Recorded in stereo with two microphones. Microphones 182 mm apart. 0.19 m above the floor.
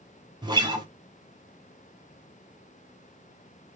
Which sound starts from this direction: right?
A guitar, at 0.4 s.